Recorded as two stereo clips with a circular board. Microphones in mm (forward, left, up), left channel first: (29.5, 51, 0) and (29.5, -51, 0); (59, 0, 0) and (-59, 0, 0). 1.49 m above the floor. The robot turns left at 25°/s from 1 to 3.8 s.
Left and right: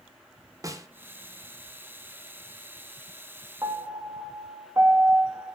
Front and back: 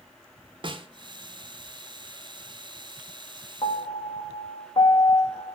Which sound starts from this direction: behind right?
A snare drum, at 0.6 s.